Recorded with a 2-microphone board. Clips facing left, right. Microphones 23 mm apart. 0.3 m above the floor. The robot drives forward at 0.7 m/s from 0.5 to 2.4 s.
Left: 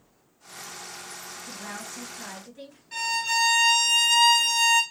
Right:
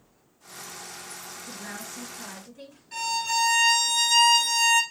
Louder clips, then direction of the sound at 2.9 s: Left 1 dB; 10° left (ahead or behind).